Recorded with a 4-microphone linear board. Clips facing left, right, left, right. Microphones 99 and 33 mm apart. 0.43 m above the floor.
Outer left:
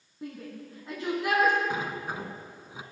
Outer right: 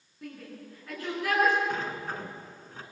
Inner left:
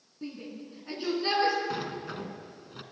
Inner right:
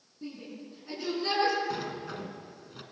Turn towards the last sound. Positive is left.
turn(degrees=10)  # may be behind; listen again after turning